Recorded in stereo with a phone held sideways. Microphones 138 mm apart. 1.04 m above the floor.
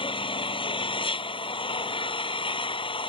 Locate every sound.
0.0 s an engine running: 40° left (ahead or behind)